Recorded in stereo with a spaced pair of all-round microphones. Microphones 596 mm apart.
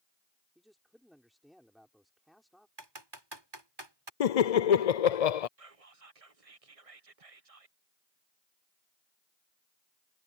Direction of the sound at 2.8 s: 40° right (ahead or behind).